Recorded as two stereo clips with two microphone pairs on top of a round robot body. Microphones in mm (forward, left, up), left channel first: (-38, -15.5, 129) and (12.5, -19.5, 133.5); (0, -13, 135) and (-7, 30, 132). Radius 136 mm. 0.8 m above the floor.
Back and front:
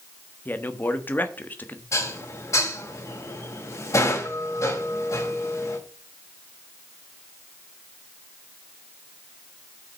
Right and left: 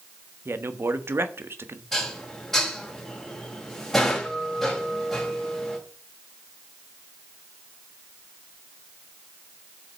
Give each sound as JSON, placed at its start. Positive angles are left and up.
{"t": 0.5, "sound": "a man speaking", "azimuth_deg": 125, "distance_m": 1.4}
{"t": 1.9, "sound": "dishes clattering", "azimuth_deg": -160, "distance_m": 3.0}